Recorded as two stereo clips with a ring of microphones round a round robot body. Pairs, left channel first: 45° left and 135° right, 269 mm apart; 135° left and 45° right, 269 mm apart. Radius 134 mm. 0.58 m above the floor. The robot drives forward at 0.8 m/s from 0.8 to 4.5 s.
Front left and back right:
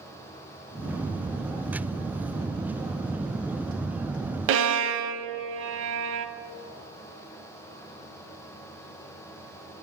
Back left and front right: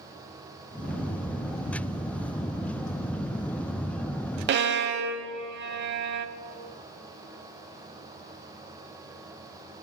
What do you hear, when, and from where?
4.5 s a violin: 90° right, 0.6 m; by 6.3 s 95° right, 0.6 m